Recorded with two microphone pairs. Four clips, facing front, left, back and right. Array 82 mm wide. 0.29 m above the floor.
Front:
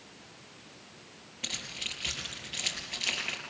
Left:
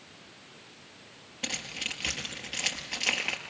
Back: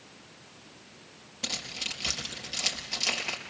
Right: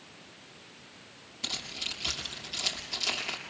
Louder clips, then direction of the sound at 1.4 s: Left 4 dB, back 3 dB; 105° left.